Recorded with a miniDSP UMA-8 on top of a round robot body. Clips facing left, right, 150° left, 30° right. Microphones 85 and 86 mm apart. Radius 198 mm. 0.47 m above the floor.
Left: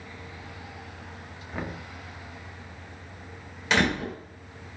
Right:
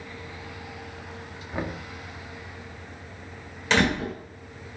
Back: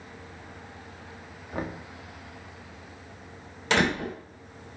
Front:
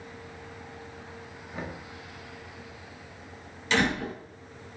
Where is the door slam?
175° left, 3 m.